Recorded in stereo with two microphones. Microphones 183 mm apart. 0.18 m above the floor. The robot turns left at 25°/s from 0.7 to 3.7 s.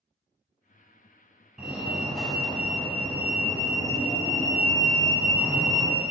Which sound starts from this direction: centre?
A fire alarm, at 1.6 s.